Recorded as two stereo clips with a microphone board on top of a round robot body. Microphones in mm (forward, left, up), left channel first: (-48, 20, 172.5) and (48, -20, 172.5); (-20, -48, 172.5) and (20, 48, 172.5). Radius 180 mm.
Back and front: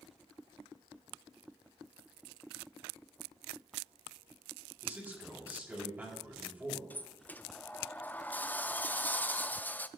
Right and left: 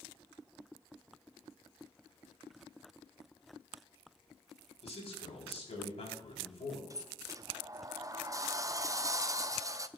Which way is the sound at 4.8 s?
95° right.